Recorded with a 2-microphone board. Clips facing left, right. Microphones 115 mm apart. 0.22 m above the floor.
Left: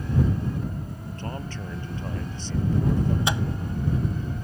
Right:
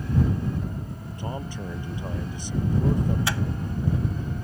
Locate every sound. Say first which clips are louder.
1.2 s a man speaking: right 2 dB; 15° right (ahead or behind)
3.3 s a microwave: left 1 dB; 20° left (ahead or behind)